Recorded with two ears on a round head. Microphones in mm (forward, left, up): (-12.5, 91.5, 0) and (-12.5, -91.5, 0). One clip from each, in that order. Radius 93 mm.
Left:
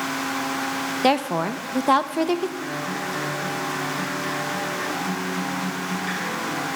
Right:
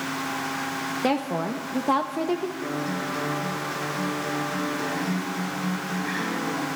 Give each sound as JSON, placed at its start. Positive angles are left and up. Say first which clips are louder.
{"t": 1.0, "sound": "a woman speaking", "louder": "left 6 dB", "side_deg": 35, "distance_m": 0.6}
{"t": 2.6, "sound": "a guitar", "louder": "left 1 dB", "side_deg": 75, "distance_m": 8.0}